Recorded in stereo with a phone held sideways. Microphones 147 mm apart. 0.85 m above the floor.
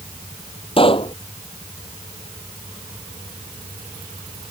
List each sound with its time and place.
0.8 s a pop: 40° left (ahead or behind)